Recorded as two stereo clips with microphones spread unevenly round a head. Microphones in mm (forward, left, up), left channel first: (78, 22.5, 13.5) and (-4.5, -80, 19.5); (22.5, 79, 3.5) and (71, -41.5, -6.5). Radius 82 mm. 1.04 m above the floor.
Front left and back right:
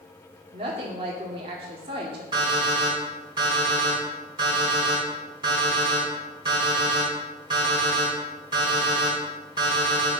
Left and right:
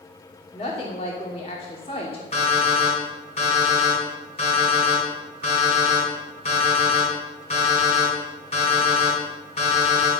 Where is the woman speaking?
175° left, 2.5 m.